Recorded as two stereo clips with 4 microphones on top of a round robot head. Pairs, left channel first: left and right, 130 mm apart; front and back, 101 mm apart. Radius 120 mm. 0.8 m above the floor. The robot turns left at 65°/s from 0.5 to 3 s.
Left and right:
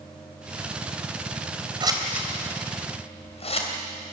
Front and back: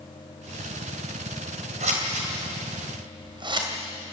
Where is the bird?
I don't hear a bird.